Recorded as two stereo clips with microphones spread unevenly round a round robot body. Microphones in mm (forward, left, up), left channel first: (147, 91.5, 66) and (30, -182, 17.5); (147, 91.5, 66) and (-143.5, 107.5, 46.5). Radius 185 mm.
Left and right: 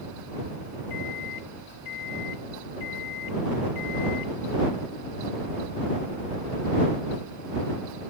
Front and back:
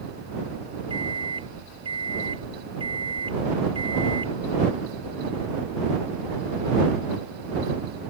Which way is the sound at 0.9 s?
105° left.